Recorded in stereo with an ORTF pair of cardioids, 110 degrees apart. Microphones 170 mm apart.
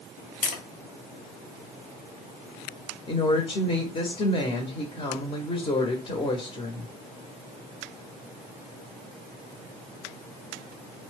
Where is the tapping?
55° left, 0.8 m.